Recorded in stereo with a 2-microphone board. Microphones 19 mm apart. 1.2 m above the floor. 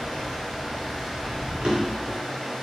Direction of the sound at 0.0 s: 25° left (ahead or behind).